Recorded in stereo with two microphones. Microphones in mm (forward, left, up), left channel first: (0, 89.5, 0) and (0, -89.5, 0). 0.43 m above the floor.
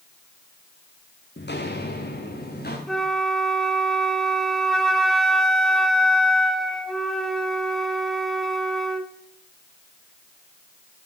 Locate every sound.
1.4 s footsteps: 65° left (ahead or behind), 1.4 m; by 2.8 s 60° left (ahead or behind), 3 m
2.9 s a flute: centre (ahead or behind), 0.9 m